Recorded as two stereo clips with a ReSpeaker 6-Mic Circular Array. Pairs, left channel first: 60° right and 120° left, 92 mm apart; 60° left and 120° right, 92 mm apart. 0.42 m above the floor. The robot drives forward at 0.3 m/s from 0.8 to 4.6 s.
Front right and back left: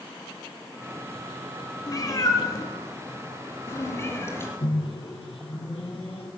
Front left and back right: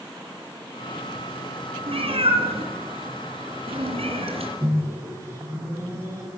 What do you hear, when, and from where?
1.9 s a cat meowing: 105° right, 2.5 m; by 4.5 s 120° right, 3 m
4.6 s a microwave: 60° right, 5 m